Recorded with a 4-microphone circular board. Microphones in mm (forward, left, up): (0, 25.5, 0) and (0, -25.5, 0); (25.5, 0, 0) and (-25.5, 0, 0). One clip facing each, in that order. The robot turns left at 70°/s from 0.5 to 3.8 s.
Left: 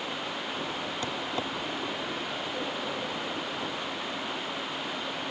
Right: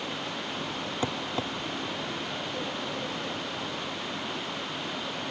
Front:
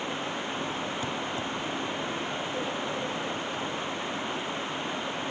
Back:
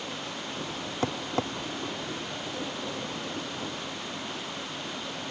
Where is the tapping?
155° right; by 1.5 s 170° left.